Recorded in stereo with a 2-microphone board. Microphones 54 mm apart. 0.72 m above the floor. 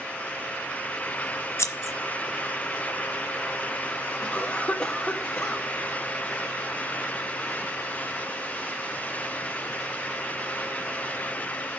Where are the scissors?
60° left (ahead or behind), 0.9 m.